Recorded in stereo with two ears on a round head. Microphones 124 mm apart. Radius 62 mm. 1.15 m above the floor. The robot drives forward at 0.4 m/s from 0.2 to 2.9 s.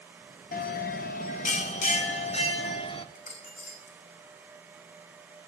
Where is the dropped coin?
45° left (ahead or behind), 3.5 m.